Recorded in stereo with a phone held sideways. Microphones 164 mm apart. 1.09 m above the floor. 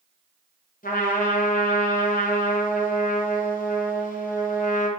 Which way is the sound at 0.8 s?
55° left (ahead or behind).